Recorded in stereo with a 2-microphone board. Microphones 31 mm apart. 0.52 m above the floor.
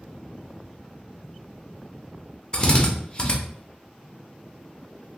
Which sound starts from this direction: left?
A drill, at 2.5 s.